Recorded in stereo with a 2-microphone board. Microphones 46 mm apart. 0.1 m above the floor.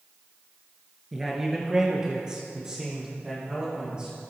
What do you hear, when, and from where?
1.1 s a man speaking: 5° right (ahead or behind), 1.5 m; by 4.3 s 20° right (ahead or behind), 5.5 m